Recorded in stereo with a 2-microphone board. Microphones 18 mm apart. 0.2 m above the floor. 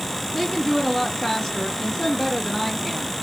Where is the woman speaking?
20° left (ahead or behind), 2.5 m.